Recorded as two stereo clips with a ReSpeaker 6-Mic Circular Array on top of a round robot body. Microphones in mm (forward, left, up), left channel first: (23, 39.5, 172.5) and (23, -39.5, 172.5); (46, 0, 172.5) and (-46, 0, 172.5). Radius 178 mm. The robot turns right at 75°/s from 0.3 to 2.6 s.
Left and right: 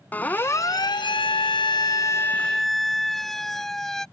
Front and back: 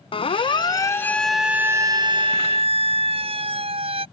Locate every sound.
0.1 s a siren: 20° left; by 4.0 s 175° left